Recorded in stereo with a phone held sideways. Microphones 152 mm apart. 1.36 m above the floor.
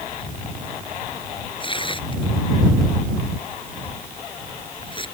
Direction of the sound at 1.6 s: 35° left (ahead or behind).